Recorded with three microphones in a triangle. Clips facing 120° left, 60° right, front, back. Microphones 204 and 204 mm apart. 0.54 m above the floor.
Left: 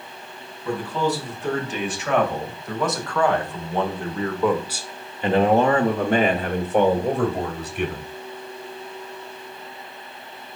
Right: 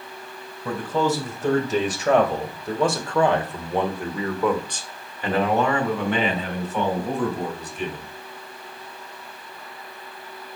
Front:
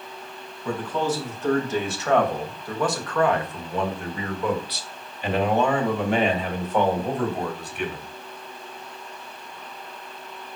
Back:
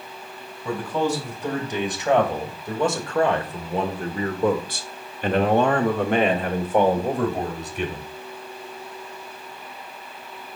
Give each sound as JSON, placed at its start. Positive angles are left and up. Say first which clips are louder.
{"t": 0.7, "sound": "a man speaking", "louder": "right 1 dB, back 2 dB", "azimuth_deg": -100, "distance_m": 3.0}